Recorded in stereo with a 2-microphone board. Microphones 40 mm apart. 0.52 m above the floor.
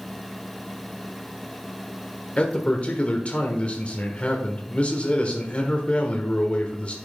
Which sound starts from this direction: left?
A man speaking, at 2.4 s.